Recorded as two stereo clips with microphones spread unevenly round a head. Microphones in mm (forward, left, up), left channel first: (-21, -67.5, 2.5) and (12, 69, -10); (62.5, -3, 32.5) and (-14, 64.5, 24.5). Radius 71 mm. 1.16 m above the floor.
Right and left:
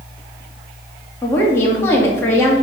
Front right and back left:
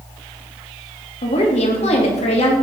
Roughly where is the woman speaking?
Ahead right.